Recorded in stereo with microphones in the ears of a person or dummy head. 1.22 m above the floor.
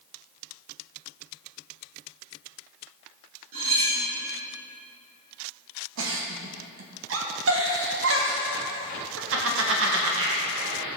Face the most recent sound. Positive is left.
turn(degrees=-55)  # may be behind; listen again after turning